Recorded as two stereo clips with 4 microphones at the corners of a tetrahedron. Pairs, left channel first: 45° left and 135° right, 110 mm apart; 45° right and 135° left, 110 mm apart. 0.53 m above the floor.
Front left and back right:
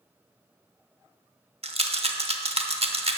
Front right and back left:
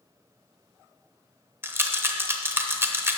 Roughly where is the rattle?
Behind.